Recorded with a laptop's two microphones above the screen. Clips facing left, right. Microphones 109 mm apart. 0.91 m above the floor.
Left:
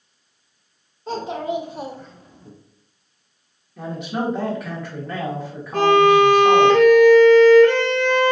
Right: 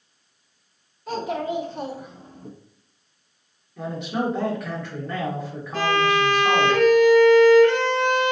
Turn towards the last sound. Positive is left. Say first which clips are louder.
# left 8 dB
turn(degrees=50)  # may be behind; listen again after turning